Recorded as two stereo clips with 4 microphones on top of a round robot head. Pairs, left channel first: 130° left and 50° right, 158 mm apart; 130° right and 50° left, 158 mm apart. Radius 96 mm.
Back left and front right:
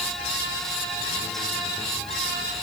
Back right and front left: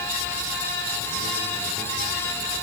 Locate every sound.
Only background noise.